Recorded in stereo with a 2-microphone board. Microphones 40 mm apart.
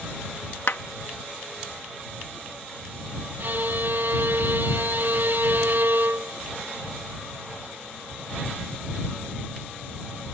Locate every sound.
0.7 s a clap: 65° left (ahead or behind)
3.4 s a violin: 55° right (ahead or behind)